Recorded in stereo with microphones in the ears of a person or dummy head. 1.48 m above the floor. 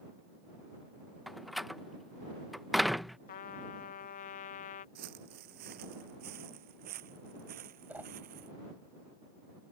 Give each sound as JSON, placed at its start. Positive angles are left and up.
{"t": 1.3, "sound": "a door slam", "side_deg": 0}
{"t": 3.3, "sound": "a trumpet", "side_deg": 45}
{"t": 5.0, "sound": "footsteps", "side_deg": -45}
{"t": 7.9, "sound": "a whoosh", "side_deg": -10}